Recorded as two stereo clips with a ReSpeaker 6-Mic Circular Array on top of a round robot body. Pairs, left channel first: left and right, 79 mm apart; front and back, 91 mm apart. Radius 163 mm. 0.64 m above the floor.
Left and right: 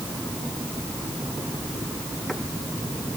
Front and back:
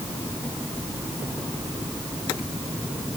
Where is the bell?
I don't hear a bell.